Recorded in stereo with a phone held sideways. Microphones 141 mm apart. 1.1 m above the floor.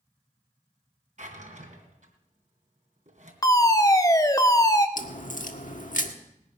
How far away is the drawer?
About 2.5 m.